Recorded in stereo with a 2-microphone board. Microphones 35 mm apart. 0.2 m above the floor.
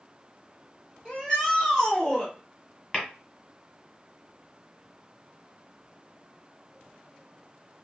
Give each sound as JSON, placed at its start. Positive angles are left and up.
{"t": 1.1, "sound": "a shout", "side_deg": 15, "distance_m": 1.6}
{"t": 2.9, "sound": "tapping", "side_deg": 25, "distance_m": 1.6}